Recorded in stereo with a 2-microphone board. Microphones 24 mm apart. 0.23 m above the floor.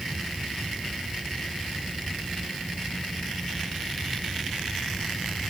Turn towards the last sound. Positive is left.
No sound to turn to.